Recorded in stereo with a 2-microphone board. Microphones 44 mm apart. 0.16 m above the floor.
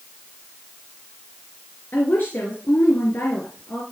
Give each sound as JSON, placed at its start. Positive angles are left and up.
{"t": 1.9, "sound": "a woman speaking", "side_deg": 55, "distance_m": 2.5}